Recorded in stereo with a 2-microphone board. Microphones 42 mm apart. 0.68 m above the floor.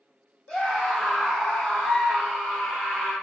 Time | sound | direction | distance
0.5 | a scream | 20° left (ahead or behind) | 0.9 m